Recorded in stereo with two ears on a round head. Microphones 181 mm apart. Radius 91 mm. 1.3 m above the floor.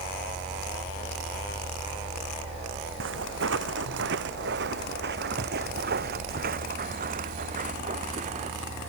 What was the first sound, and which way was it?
Footsteps, 70° right (ahead or behind).